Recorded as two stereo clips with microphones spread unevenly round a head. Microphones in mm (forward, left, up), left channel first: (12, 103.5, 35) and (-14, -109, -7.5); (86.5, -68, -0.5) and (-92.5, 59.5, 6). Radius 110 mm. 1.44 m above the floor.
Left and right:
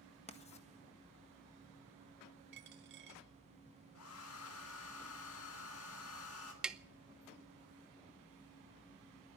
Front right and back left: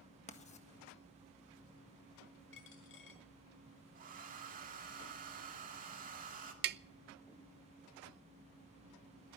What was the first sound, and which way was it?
Writing, 25° left.